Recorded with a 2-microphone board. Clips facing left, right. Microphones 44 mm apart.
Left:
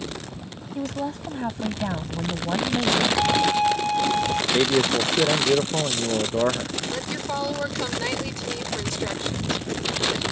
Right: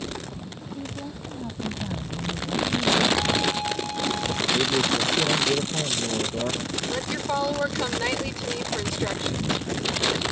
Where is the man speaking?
45° left (ahead or behind).